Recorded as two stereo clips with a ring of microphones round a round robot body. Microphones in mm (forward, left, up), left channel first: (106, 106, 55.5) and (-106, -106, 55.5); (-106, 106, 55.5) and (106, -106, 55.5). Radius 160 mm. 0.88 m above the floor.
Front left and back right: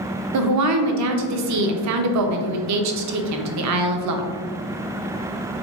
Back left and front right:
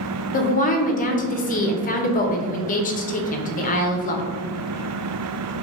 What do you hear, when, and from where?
0.3 s a woman speaking: 160° right, 0.5 m